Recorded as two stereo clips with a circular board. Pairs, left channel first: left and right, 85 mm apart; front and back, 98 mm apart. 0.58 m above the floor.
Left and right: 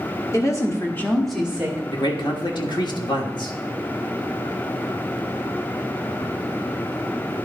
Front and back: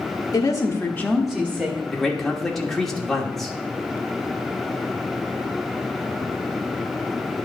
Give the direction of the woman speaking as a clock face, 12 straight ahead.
10 o'clock.